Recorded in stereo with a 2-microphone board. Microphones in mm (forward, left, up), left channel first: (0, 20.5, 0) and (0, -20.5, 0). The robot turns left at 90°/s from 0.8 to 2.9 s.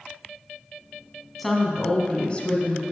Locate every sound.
1.4 s a woman speaking: centre (ahead or behind), 1.2 m; by 2.8 s 20° left (ahead or behind), 1.2 m